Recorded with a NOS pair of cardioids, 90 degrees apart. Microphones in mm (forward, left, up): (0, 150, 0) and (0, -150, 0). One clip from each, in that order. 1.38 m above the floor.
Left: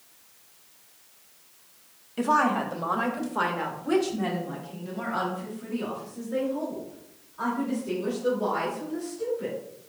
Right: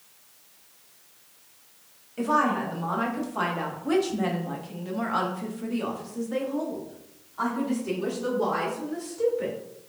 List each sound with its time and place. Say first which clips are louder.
2.2 s a woman speaking: left 1 dB; 30° left, 1.7 m; by 9.5 s 75° right, 3.5 m